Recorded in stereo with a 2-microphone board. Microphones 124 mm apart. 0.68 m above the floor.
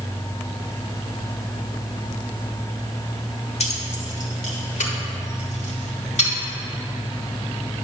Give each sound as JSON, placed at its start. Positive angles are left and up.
{"t": 3.6, "sound": "keys jangling", "side_deg": 65, "distance_m": 1.1}